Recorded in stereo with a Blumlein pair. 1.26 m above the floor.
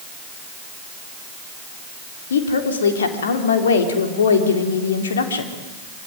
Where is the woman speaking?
65° left, 3.5 m.